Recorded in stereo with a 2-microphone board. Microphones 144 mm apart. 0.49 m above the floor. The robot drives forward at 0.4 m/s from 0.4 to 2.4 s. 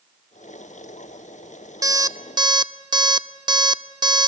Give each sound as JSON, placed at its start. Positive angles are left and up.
{"t": 1.8, "sound": "an alarm clock", "side_deg": -25, "distance_m": 0.6}